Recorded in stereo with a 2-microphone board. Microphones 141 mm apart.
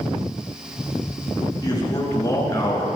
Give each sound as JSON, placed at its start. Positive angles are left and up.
{"t": 1.6, "sound": "a man speaking", "side_deg": 30, "distance_m": 8.5}